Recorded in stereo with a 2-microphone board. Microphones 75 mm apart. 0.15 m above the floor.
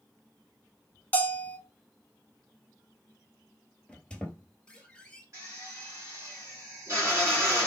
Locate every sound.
1.1 s a bell: 20° left (ahead or behind), 0.6 m
3.9 s a squeak: 10° left (ahead or behind), 1.0 m
5.3 s a drill: 40° right (ahead or behind), 2.5 m